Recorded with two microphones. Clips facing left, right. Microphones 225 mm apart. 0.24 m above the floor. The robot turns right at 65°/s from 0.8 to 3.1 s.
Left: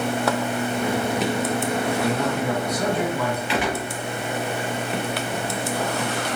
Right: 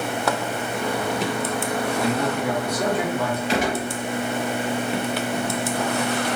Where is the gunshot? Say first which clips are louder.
Right 2 dB; 40° right (ahead or behind), 1.1 m.